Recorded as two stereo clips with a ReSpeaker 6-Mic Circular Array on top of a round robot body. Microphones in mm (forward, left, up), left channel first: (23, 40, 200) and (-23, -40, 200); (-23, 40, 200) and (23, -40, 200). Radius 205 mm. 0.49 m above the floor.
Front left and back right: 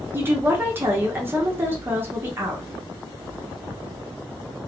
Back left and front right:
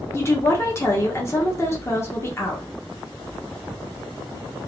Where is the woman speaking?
175° left, 1.0 m.